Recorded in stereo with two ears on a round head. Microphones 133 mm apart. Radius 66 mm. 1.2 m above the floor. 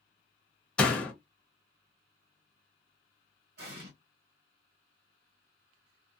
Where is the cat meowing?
I don't hear a cat meowing.